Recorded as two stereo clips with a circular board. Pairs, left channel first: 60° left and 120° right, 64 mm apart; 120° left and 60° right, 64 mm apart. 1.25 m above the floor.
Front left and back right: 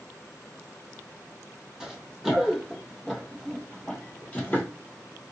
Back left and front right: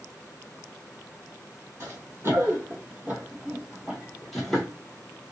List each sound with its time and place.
1.8 s running footsteps: 40° right, 1.7 m; by 4.7 s 50° left, 1.3 m